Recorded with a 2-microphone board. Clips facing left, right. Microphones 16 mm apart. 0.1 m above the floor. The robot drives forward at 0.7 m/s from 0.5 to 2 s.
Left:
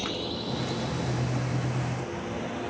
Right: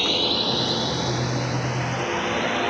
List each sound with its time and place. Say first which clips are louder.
0.0 s a drone: right 11 dB; 35° right (ahead or behind); by 2.7 s 40° right (ahead or behind)